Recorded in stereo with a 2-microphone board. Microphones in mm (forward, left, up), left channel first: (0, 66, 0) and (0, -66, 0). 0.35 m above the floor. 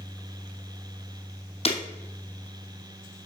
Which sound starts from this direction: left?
Breaking glass, at 1.6 s.